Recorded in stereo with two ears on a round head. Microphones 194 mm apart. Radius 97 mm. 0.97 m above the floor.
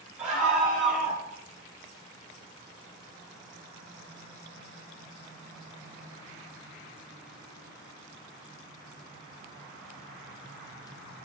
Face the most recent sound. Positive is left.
turn(degrees=0)  # may be behind; listen again after turning